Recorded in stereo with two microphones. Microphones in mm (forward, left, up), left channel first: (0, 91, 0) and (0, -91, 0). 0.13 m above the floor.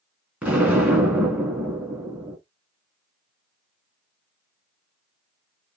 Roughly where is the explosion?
Centre.